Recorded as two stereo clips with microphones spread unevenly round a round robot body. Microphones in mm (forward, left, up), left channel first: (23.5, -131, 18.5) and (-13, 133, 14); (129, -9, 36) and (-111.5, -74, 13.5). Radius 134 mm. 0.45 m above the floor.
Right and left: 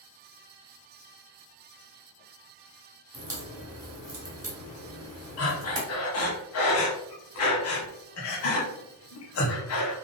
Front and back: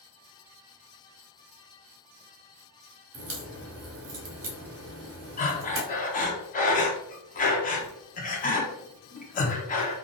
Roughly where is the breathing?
Ahead right.